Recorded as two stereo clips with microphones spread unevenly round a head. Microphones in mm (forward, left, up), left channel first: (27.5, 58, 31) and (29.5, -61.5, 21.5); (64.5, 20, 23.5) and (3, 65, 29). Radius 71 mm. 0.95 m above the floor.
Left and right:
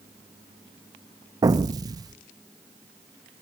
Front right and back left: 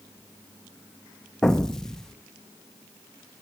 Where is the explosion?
110° right, 0.5 m.